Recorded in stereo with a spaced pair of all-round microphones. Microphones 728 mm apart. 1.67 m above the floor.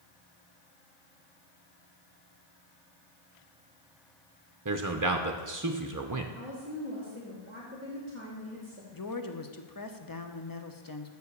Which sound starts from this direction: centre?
A woman speaking, at 6.3 s.